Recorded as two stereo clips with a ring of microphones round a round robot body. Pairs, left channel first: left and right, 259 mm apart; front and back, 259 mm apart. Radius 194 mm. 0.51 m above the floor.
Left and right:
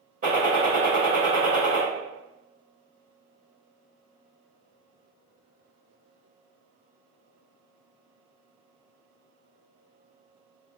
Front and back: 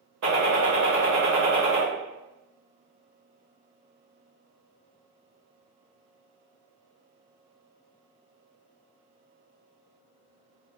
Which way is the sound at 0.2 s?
155° right.